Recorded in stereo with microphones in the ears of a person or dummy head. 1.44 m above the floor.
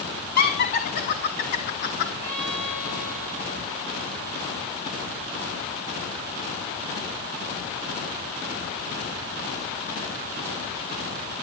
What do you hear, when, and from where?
0.4 s laughter: 50° left (ahead or behind), 3 m; by 2.1 s 45° left (ahead or behind), 2 m
2.2 s a violin: 35° left (ahead or behind), 10 m